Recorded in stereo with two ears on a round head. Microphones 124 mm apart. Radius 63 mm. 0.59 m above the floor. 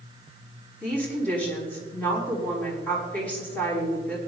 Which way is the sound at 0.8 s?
15° left (ahead or behind).